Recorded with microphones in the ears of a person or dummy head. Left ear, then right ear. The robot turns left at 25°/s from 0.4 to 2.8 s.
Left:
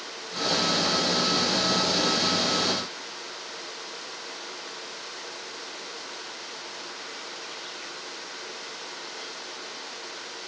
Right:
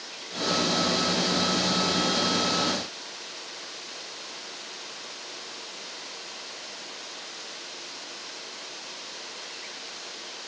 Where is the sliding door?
I don't hear a sliding door.